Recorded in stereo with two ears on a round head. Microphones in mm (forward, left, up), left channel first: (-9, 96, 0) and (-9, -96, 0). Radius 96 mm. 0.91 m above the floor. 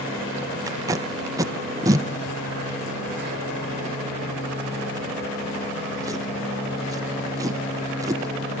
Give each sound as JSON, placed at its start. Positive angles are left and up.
{"t": 0.7, "sound": "tape being pulled", "side_deg": -15, "distance_m": 0.7}